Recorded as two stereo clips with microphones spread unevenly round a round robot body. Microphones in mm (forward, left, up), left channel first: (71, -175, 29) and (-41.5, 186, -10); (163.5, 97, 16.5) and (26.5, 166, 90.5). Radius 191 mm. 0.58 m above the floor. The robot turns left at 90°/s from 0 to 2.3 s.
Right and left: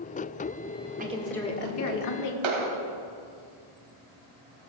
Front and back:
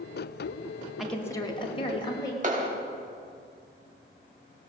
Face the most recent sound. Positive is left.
turn(degrees=110)